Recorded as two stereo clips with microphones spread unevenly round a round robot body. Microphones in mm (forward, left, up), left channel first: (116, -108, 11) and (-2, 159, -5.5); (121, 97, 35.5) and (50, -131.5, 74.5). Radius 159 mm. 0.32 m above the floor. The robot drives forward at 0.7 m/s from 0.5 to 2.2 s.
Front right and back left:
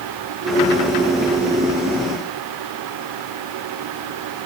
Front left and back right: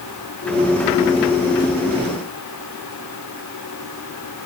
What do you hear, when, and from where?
Only background noise.